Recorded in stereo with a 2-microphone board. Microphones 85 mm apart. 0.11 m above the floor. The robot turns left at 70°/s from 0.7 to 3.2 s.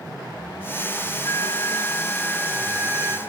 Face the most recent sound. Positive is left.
turn(degrees=-55)